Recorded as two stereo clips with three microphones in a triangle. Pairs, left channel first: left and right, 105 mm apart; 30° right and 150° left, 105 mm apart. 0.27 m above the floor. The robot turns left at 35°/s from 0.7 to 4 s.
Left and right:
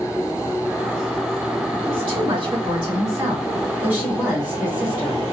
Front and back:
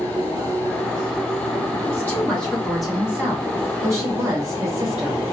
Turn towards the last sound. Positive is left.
turn(degrees=-165)